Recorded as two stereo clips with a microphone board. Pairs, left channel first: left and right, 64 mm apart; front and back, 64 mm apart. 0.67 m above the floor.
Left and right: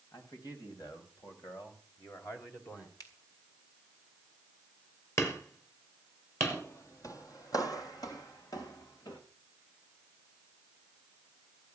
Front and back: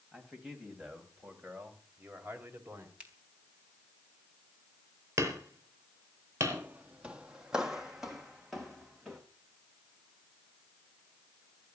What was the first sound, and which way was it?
A man speaking, 90° left.